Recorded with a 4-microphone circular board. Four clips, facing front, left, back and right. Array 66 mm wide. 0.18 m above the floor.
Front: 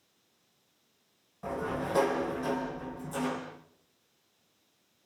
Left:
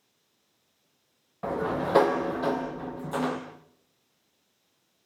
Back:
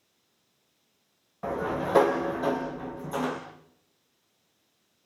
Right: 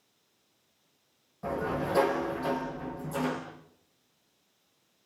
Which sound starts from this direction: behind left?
A sliding door, at 1.4 s.